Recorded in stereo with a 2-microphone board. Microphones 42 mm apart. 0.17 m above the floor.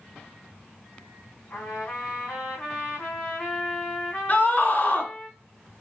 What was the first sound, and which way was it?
A trumpet, 45° left (ahead or behind).